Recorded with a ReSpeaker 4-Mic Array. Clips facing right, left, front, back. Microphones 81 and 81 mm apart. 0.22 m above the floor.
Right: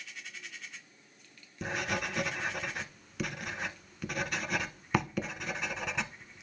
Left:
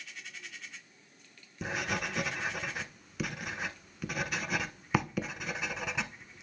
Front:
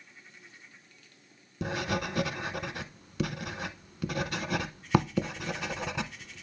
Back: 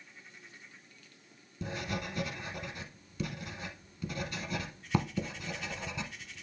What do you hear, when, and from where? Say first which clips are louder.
1.6 s writing: even, front 6 dB; straight ahead, 0.6 m